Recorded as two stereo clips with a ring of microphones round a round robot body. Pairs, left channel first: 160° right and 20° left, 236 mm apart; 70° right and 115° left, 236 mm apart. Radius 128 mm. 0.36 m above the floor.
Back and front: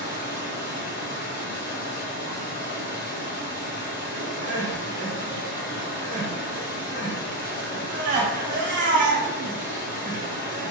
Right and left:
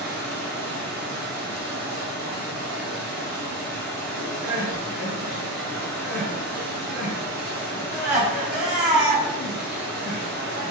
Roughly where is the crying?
Ahead left.